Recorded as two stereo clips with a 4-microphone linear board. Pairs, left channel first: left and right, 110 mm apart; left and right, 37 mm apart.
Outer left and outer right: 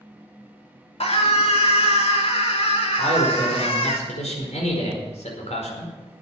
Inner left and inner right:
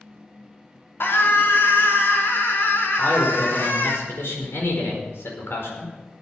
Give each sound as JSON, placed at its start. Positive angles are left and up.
{"t": 1.0, "sound": "a scream", "side_deg": 65, "distance_m": 2.5}
{"t": 3.0, "sound": "a man speaking", "side_deg": 85, "distance_m": 4.5}